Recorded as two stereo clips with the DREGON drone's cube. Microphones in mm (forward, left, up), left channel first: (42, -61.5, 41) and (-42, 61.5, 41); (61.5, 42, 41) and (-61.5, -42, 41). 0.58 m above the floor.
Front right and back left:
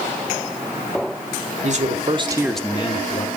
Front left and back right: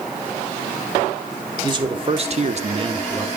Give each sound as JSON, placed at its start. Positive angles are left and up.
{"t": 1.6, "sound": "a man speaking", "azimuth_deg": 155, "distance_m": 1.8}